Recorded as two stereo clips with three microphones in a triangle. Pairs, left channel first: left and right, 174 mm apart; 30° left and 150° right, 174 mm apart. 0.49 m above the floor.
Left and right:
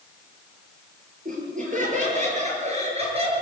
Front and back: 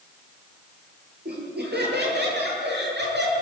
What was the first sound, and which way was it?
Laughter, 130° right.